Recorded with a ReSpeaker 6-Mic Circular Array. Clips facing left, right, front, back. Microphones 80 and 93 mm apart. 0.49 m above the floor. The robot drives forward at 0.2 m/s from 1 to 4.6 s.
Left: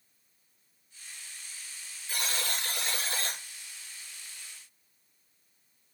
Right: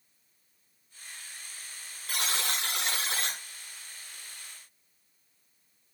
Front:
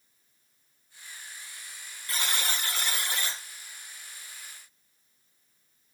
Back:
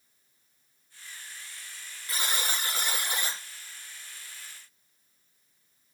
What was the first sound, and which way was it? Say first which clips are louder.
A buzzer: right 2 dB, even; 105° right.